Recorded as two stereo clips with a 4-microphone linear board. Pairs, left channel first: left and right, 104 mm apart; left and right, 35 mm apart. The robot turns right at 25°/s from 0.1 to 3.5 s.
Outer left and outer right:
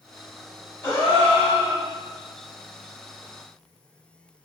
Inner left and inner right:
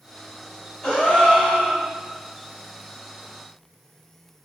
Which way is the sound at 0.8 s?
25° left (ahead or behind).